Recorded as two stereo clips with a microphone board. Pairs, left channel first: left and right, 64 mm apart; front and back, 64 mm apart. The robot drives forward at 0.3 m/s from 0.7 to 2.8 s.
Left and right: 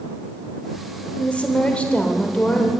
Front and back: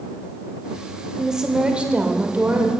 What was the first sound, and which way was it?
A woman speaking, 110° left.